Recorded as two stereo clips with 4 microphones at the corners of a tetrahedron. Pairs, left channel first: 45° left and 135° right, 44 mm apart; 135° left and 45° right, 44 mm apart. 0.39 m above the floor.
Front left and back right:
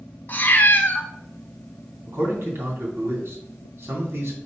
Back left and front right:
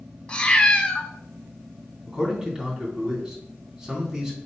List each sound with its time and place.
0.3 s a cat meowing: 75° left, 0.9 m
2.1 s a man speaking: 120° right, 2.5 m